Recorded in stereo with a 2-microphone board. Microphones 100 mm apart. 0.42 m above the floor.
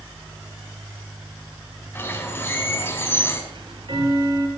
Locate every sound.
1.9 s a bird: 25° left (ahead or behind), 4 m
3.5 s ticking: 55° right (ahead or behind), 6 m